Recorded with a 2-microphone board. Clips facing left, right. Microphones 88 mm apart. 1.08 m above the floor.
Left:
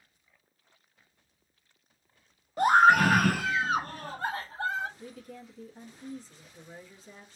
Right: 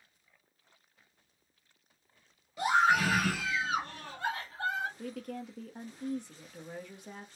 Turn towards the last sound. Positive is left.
turn(degrees=-65)  # may be behind; listen again after turning